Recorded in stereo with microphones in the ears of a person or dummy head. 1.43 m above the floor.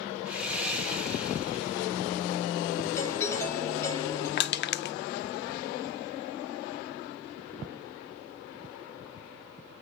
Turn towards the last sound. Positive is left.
turn(degrees=50)  # may be behind; listen again after turning